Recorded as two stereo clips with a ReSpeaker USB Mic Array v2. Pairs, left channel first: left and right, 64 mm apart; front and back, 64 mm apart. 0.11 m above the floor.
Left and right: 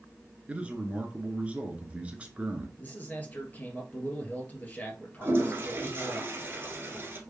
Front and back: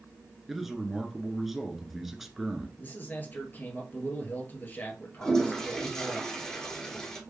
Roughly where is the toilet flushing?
Right.